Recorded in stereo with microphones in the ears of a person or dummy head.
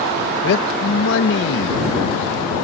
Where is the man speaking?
65° left (ahead or behind).